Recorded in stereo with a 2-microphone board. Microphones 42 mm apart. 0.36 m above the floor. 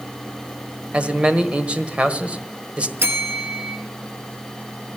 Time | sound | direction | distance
0.9 | a man speaking | 25° right (ahead or behind) | 1.3 m
3.0 | a bell | 55° right (ahead or behind) | 1.4 m